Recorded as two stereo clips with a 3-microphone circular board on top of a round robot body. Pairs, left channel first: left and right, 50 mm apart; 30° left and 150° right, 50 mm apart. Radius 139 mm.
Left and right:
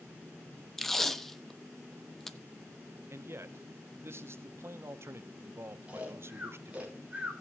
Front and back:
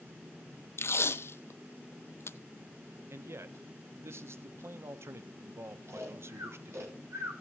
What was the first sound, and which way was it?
Tape being pulled, 5° left.